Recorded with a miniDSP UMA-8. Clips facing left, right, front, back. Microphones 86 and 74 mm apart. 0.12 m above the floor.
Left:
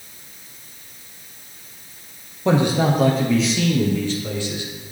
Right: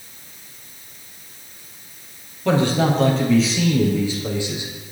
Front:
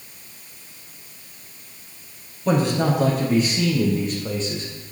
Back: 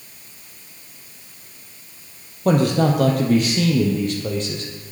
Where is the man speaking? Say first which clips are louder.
Even, back 3 dB; 160° left, 2.5 m; by 4.7 s 155° right, 3.5 m.